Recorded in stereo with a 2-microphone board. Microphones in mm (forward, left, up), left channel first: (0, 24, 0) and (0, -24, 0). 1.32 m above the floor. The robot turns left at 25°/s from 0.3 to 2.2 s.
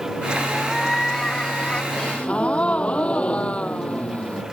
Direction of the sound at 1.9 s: 15° left (ahead or behind).